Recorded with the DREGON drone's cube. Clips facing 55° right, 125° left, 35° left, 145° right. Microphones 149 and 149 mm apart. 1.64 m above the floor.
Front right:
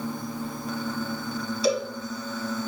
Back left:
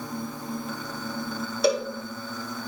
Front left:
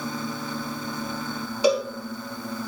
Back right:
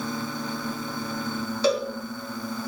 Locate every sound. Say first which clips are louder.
1.6 s a cowbell: back left 1 dB, front left 2 dB; 110° left, 1.3 m